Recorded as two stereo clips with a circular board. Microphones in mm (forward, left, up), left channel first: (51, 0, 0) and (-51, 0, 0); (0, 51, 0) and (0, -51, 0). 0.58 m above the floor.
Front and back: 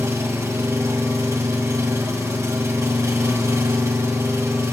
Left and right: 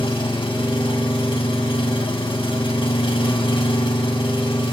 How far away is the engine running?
About 1.9 m.